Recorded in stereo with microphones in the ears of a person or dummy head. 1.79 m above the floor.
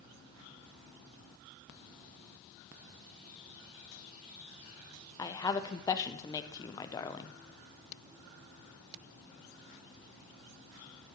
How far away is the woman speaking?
About 0.6 m.